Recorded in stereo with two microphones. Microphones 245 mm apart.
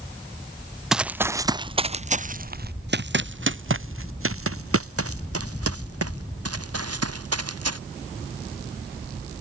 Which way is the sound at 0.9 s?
Centre (ahead or behind).